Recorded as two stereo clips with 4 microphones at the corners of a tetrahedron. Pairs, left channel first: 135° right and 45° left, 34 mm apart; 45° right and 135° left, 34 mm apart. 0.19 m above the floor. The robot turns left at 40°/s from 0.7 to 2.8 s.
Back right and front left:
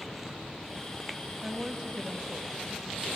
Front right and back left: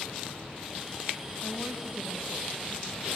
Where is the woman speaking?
95° left, 1.3 m; by 3.1 s 40° left, 1.3 m.